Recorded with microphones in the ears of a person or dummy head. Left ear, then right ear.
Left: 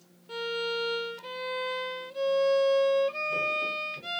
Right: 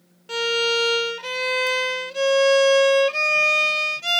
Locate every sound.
0.3 s a violin: 65° right (ahead or behind)